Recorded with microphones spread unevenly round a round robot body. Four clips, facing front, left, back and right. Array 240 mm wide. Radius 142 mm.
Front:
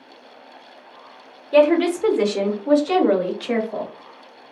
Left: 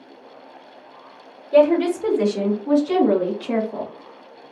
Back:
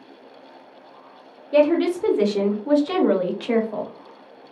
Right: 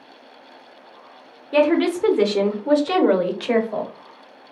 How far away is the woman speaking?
About 1.0 m.